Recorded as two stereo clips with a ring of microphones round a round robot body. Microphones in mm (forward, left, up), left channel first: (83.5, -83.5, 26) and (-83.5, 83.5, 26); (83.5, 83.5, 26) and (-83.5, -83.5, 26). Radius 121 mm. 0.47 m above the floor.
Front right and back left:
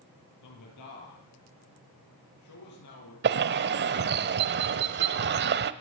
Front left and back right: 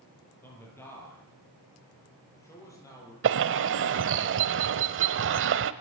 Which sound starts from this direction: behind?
A bird, at 3.2 s.